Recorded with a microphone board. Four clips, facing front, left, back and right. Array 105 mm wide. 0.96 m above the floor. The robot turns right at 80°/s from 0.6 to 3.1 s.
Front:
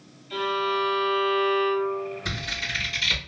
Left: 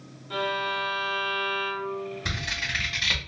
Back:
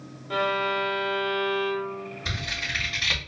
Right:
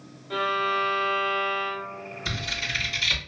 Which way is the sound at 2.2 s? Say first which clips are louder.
Even, front 1 dB; 75° left.